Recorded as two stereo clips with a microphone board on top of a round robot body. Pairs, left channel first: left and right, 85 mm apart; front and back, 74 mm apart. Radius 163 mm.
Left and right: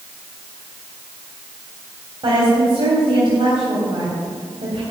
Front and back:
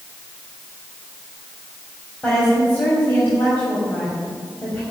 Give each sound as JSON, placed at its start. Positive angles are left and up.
{"t": 2.2, "sound": "a woman speaking", "azimuth_deg": -70, "distance_m": 3.5}